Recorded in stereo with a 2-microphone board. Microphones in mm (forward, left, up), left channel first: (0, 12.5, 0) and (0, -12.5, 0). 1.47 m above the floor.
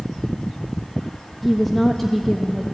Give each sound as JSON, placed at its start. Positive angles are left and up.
{"t": 1.4, "sound": "a woman speaking", "side_deg": 5, "distance_m": 1.4}